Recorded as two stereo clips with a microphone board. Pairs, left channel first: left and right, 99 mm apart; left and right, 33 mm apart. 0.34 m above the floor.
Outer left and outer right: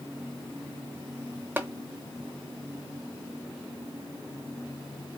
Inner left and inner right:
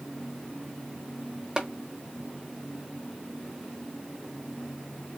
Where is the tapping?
20° right (ahead or behind), 0.9 m.